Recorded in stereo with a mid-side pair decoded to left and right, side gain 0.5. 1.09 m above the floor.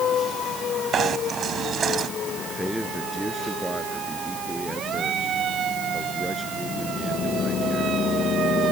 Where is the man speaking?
Straight ahead.